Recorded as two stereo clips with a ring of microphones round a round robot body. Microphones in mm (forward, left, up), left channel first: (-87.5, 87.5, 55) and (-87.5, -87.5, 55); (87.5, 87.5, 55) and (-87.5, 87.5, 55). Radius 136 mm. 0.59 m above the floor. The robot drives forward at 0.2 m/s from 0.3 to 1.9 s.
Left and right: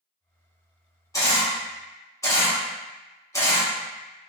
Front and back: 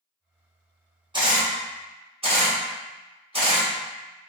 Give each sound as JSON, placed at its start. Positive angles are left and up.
{"t": 1.1, "sound": "a camera shutter", "azimuth_deg": 145, "distance_m": 1.3}